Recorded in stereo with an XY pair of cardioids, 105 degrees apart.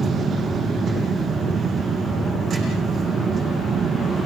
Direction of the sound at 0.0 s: 45° right.